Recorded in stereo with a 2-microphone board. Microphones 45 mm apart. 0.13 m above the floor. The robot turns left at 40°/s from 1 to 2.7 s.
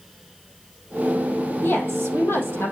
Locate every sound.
1.6 s a woman speaking: 130° left, 5.5 m; by 2.7 s 85° left, 5.5 m